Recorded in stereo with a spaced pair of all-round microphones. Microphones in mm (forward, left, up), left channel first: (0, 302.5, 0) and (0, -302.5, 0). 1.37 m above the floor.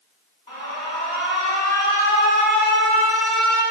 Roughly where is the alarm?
Left.